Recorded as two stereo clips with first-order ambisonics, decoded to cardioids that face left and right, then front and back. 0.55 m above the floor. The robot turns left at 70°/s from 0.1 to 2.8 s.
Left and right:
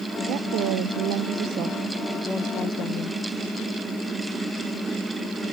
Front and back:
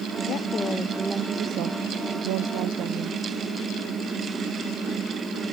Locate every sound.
0.3 s a woman speaking: 45° right; by 3.2 s 135° left